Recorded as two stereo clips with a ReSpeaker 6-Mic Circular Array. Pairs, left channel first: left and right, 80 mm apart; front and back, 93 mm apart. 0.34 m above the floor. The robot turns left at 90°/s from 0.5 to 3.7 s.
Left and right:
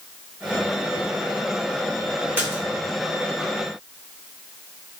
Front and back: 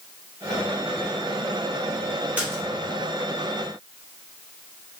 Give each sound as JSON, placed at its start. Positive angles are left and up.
{"t": 2.4, "sound": "a splash", "azimuth_deg": -125, "distance_m": 1.0}